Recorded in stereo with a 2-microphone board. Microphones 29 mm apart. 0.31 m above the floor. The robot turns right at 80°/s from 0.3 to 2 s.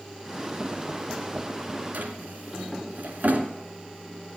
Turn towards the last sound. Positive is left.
turn(degrees=-75)  # may be behind; listen again after turning